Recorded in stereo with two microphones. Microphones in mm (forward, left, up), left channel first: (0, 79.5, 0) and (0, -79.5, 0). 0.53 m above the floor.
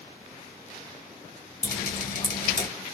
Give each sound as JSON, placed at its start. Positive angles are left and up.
{"t": 1.6, "sound": "dripping", "side_deg": 70, "distance_m": 1.7}